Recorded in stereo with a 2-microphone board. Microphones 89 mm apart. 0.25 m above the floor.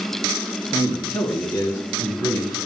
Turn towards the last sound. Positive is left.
turn(degrees=40)  # may be behind; listen again after turning